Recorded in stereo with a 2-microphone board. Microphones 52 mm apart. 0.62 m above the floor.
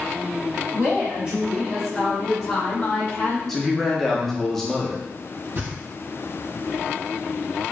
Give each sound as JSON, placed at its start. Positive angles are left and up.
{"t": 0.7, "sound": "a woman speaking", "side_deg": -45, "distance_m": 1.1}
{"t": 3.5, "sound": "a man speaking", "side_deg": 5, "distance_m": 0.8}
{"t": 5.5, "sound": "knocking", "side_deg": -60, "distance_m": 1.8}